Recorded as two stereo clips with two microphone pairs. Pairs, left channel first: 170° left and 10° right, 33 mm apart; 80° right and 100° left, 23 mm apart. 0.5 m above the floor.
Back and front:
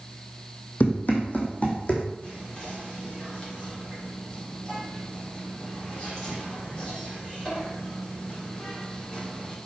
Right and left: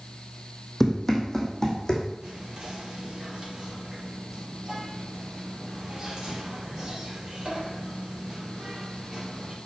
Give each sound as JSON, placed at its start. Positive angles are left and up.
{"t": 0.8, "sound": "running footsteps", "azimuth_deg": -160, "distance_m": 1.4}
{"t": 2.2, "sound": "whispering", "azimuth_deg": 125, "distance_m": 1.5}